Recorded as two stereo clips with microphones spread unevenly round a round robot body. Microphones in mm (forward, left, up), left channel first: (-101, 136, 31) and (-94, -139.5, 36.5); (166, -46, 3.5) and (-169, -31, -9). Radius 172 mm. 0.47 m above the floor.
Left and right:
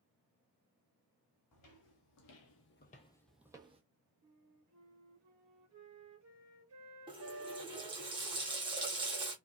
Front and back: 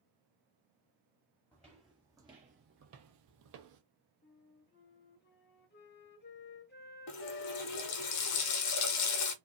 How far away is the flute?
About 0.6 m.